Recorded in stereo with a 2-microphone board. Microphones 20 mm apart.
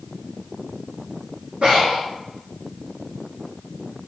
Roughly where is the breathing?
Right.